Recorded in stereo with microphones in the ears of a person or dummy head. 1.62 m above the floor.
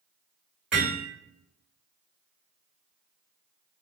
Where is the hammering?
5° right (ahead or behind), 1.7 m.